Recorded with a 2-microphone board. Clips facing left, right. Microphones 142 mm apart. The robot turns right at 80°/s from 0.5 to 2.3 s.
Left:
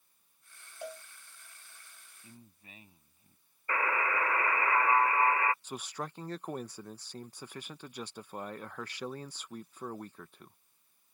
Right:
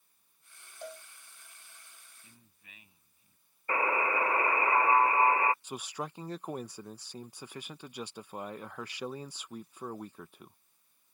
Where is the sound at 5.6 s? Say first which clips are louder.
Right 1 dB; 10° right (ahead or behind).